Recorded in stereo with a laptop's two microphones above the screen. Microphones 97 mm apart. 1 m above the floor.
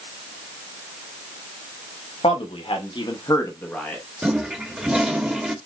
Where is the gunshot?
I don't hear a gunshot.